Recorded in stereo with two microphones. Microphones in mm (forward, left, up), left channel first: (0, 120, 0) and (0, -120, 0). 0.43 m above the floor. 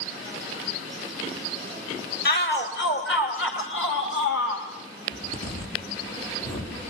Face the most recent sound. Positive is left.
turn(degrees=85)